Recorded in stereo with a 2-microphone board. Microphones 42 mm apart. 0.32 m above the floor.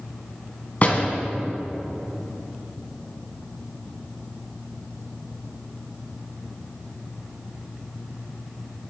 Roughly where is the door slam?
Left.